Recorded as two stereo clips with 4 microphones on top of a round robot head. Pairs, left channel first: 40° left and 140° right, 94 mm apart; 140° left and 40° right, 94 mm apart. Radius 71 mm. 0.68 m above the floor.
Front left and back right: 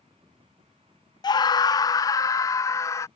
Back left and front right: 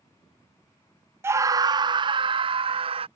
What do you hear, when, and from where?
1.2 s a scream: 15° left; by 3.1 s 20° right